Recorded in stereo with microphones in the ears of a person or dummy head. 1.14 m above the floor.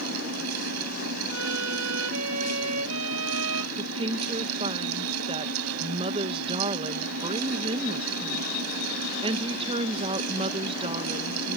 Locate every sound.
0.0 s a fan: 80° right
1.3 s a violin: 85° right
3.8 s a woman speaking: 35° right (ahead or behind)